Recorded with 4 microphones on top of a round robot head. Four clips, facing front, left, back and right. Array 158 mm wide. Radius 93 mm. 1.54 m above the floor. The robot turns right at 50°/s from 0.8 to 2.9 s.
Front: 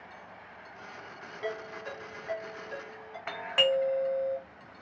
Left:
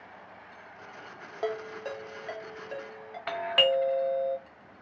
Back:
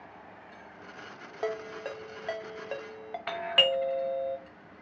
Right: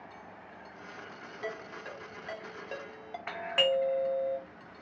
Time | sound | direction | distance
1.4 | a ringtone | 130° left | 0.9 m
3.3 | a doorbell | 120° left | 0.8 m